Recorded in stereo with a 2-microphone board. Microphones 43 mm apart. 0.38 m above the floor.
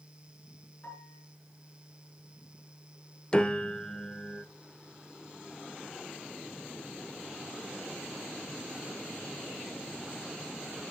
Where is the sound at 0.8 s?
40° left (ahead or behind), 5 m.